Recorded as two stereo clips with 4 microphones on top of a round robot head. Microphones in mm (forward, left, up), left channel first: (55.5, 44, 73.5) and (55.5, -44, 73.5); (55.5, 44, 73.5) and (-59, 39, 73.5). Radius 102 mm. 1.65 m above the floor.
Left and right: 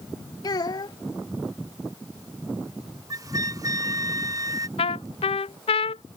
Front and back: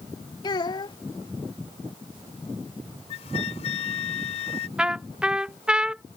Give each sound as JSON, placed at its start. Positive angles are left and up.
{"t": 0.4, "sound": "a child speaking", "azimuth_deg": 55}
{"t": 3.1, "sound": "a flute", "azimuth_deg": -40}
{"t": 4.8, "sound": "a trumpet", "azimuth_deg": 100}